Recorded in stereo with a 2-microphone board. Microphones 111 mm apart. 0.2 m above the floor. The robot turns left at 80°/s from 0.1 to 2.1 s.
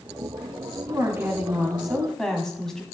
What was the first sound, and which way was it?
A woman speaking, 25° right (ahead or behind).